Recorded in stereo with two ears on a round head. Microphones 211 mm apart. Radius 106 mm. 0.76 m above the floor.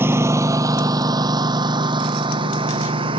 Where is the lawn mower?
10° right (ahead or behind); by 3.2 s 25° right (ahead or behind).